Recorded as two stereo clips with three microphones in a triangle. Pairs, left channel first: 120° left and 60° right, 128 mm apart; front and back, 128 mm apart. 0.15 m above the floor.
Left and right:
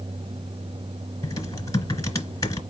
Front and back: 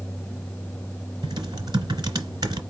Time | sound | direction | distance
1.2 | typing on a keyboard | 160° left | 1.6 m